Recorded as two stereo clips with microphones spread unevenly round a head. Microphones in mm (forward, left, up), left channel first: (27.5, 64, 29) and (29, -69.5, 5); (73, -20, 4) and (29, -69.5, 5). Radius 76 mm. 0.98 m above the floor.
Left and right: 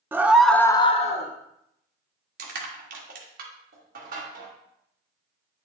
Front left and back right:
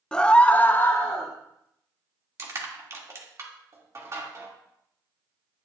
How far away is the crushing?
About 1.9 m.